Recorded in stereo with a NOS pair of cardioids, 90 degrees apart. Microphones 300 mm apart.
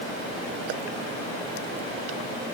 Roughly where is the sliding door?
I don't hear a sliding door.